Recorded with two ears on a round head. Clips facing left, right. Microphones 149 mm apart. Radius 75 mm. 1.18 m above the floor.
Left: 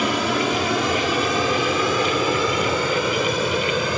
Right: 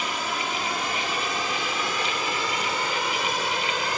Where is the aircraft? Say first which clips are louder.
Left 9 dB; 55° left (ahead or behind); by 4.0 s 75° left (ahead or behind).